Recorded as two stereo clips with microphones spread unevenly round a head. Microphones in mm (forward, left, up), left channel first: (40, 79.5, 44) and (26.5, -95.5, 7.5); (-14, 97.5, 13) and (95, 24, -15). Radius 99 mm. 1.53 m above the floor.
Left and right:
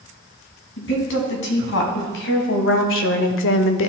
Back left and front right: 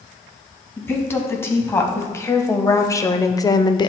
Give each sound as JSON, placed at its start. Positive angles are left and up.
{"t": 0.8, "sound": "a woman speaking", "azimuth_deg": 70, "distance_m": 2.5}